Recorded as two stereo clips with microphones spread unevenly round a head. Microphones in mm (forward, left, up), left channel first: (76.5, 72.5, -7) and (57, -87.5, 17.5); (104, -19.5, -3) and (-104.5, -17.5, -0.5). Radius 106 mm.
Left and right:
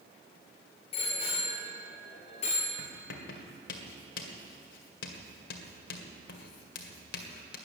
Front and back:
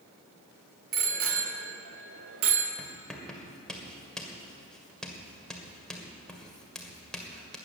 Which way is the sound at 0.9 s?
150° left.